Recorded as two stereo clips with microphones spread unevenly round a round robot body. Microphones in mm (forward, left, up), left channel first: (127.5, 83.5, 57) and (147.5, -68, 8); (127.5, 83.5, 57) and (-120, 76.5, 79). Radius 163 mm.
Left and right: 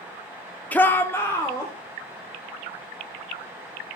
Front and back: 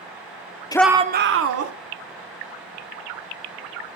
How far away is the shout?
About 0.7 m.